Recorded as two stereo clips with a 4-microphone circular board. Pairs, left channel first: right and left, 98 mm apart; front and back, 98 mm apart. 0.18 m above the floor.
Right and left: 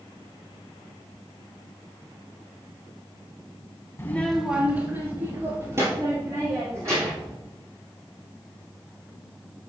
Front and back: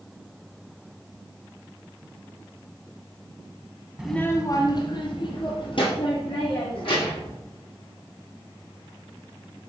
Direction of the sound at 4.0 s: 105° right.